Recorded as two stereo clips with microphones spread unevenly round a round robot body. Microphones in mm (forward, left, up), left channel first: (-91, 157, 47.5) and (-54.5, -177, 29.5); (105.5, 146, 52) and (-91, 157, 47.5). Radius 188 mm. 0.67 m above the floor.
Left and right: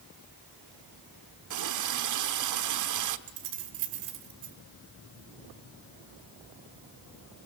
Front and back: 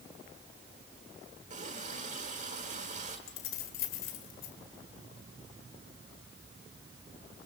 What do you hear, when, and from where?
1.5 s a running tap: 115° right, 1.3 m
3.3 s keys jangling: 30° right, 2 m